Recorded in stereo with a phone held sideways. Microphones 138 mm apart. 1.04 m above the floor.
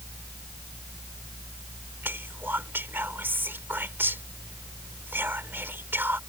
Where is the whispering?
15° right (ahead or behind).